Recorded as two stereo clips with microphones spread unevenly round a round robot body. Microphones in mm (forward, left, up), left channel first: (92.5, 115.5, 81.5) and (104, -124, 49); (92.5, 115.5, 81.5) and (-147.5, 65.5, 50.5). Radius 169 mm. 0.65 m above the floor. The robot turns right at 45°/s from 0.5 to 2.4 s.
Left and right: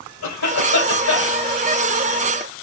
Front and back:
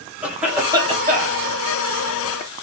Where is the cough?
105° left, 3 m; by 1.4 s 150° left, 3 m.